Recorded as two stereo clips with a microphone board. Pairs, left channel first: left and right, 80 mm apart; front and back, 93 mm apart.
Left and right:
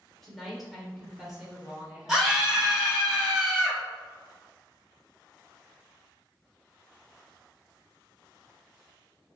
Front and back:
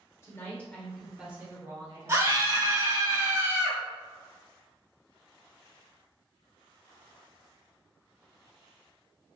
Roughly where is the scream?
Behind.